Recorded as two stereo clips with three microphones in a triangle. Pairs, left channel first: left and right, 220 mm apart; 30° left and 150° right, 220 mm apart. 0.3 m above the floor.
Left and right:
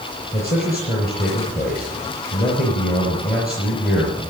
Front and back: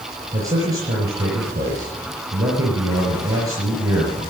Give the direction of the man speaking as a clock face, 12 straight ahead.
7 o'clock.